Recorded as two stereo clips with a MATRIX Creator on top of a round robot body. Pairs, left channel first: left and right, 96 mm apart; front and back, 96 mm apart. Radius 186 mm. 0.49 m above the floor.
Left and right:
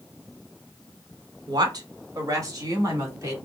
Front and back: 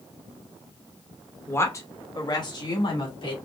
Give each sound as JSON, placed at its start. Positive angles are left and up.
{"t": 1.5, "sound": "a woman speaking", "azimuth_deg": -60, "distance_m": 1.1}